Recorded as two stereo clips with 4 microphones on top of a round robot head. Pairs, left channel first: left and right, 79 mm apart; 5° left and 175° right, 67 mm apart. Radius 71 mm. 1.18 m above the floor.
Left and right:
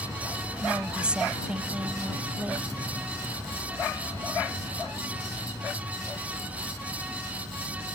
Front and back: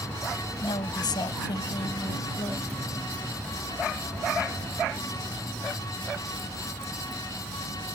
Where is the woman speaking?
10° right; by 2.7 s 15° right.